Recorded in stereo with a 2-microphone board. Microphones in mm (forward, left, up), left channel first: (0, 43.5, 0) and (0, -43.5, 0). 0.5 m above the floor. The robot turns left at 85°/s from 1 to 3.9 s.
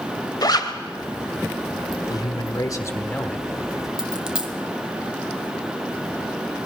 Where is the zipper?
50° left (ahead or behind), 1.6 m.